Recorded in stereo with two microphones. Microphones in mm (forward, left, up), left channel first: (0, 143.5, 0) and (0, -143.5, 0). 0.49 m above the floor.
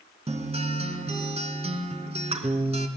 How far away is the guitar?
About 3 m.